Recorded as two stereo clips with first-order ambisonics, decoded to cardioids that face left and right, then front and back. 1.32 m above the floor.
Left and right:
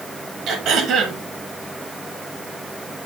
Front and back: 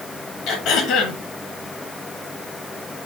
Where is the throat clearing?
45° right, 0.8 m.